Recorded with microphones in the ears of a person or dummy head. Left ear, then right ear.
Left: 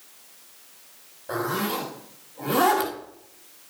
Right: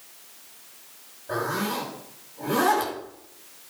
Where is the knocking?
I don't hear knocking.